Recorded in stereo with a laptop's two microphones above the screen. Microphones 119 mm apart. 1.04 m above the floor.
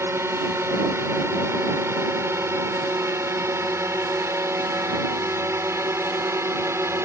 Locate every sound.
0.0 s a drone: 20° right (ahead or behind)